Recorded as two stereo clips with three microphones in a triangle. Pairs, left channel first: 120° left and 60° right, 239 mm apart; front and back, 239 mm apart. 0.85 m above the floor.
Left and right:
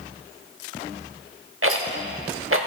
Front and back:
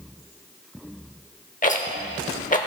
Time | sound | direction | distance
1.6 | a rattle | 55° right | 0.9 m